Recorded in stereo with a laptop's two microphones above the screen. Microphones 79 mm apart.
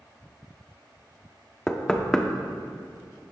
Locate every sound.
1.7 s knocking: 10° left (ahead or behind), 0.9 m